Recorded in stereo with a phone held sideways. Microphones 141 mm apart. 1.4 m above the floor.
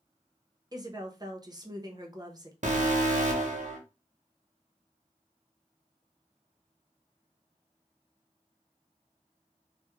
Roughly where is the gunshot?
No gunshot in this recording.